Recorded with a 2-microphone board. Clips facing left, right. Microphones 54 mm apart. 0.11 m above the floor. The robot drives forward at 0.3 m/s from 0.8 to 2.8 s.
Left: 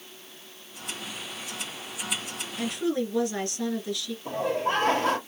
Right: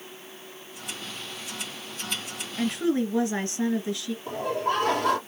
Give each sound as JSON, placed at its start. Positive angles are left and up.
{"t": 2.6, "sound": "a woman speaking", "side_deg": -30, "distance_m": 1.3}
{"t": 4.2, "sound": "laughter", "side_deg": 35, "distance_m": 3.0}